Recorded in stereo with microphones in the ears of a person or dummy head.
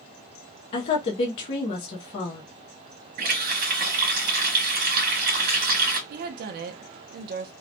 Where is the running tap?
50° right (ahead or behind), 1.3 m.